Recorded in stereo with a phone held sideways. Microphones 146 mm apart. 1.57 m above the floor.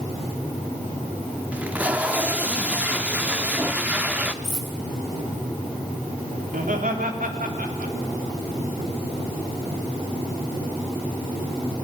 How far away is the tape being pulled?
About 1.2 m.